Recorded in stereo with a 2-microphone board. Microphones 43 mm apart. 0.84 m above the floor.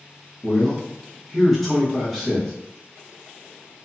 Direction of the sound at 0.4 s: Centre (ahead or behind).